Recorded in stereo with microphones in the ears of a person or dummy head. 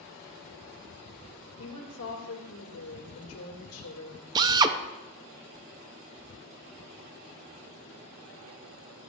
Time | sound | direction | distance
1.6 | a woman speaking | 70° left (ahead or behind) | 1.9 m
4.3 | a drill | 20° right (ahead or behind) | 0.5 m